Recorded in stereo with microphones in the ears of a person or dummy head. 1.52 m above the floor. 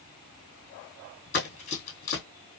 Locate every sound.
1.3 s running footsteps: 35° left (ahead or behind), 2 m